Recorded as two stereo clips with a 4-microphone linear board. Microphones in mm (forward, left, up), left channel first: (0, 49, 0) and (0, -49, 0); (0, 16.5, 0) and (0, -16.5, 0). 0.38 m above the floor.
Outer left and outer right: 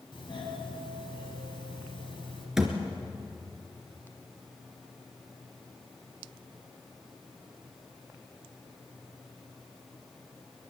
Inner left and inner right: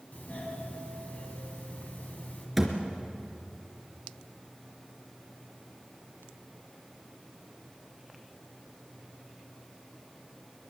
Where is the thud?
5° right (ahead or behind), 3 m.